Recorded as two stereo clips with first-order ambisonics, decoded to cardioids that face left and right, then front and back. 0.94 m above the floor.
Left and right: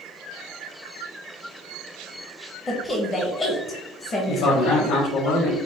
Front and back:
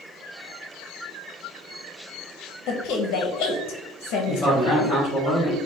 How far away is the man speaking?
About 1.6 m.